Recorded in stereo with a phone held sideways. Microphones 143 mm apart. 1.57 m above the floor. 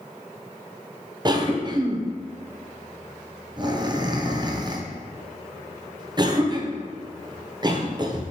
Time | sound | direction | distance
1.2 | a cough | 30° right (ahead or behind) | 0.5 m